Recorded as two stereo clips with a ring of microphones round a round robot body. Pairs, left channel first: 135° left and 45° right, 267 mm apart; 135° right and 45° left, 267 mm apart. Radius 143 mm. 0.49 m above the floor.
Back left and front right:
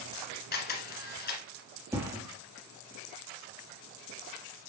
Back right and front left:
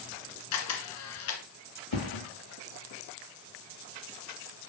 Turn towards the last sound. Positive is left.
turn(degrees=-125)